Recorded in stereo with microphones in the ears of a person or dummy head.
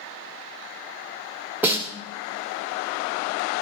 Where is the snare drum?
10° right (ahead or behind), 1.5 m.